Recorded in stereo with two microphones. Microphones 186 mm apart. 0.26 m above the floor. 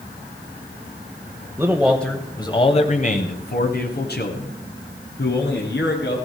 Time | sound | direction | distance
1.6 | a man speaking | 15° right (ahead or behind) | 1.0 m